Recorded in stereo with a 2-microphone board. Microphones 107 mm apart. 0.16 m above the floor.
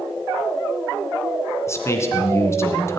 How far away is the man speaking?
About 2 m.